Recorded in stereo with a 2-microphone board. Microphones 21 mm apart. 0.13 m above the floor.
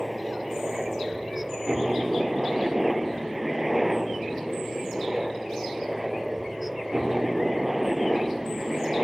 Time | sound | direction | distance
0.0 | a helicopter | 5° right (ahead or behind) | ?